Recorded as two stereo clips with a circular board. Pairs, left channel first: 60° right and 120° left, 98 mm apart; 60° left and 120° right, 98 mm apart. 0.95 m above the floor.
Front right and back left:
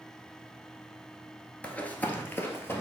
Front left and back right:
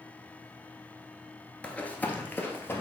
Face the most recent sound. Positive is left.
turn(degrees=0)